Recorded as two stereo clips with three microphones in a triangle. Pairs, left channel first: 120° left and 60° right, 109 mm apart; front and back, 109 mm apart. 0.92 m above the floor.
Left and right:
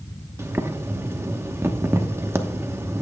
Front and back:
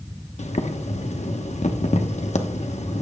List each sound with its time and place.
0.4 s boiling: 5° left, 1.0 m